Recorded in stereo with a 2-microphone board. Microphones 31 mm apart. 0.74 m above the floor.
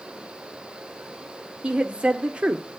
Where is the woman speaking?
35° right (ahead or behind), 1.5 m.